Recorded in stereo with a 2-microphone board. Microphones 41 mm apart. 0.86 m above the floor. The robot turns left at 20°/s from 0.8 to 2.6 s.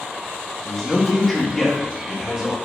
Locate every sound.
0.7 s a man speaking: 15° left, 1.3 m; by 2.5 s 20° right, 1.3 m